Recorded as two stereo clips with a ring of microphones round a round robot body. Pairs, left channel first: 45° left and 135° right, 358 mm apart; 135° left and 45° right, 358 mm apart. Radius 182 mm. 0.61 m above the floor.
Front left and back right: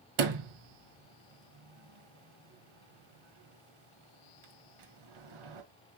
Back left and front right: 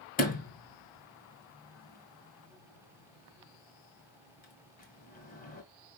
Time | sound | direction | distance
0.2 | a sliding door | 155° right | 1.6 m